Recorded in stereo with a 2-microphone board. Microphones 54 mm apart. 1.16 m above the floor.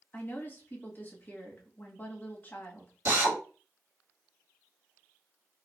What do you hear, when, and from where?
0.1 s a woman speaking: 35° left (ahead or behind), 1.2 m
3.0 s a drill: 50° right (ahead or behind), 1.7 m